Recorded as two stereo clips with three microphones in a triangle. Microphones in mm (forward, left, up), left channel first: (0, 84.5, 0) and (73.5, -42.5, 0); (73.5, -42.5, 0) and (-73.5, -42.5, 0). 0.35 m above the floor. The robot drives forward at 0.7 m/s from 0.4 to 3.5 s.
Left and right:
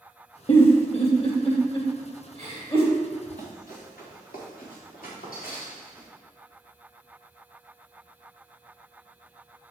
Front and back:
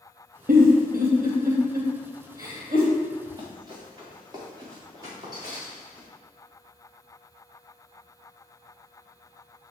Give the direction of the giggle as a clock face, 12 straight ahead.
6 o'clock.